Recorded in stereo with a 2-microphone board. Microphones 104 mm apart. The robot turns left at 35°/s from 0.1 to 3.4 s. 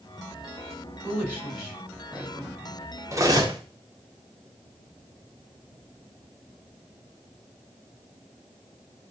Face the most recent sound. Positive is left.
turn(degrees=-40)  # may be behind; listen again after turning